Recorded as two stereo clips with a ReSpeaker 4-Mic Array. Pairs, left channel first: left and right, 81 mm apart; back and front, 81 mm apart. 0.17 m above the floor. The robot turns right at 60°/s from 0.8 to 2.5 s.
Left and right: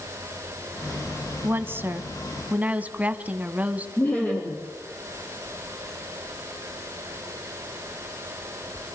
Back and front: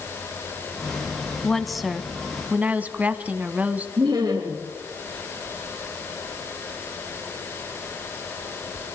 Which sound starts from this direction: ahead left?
Laughter, at 4.0 s.